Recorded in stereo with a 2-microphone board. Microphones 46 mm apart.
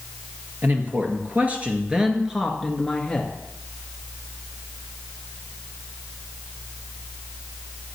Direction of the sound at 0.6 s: 50° right (ahead or behind).